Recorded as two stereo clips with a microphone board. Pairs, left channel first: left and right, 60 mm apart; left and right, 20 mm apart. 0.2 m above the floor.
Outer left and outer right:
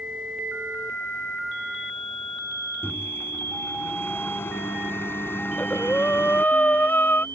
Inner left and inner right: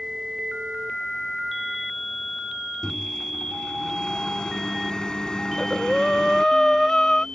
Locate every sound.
2.8 s a microwave: 40° left (ahead or behind)
5.5 s breathing: 30° left (ahead or behind)